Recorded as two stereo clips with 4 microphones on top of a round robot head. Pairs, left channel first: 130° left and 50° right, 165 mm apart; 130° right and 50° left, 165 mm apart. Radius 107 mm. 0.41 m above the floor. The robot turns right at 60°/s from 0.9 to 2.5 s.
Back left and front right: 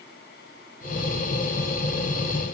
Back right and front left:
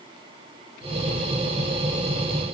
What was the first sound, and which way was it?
Only background noise.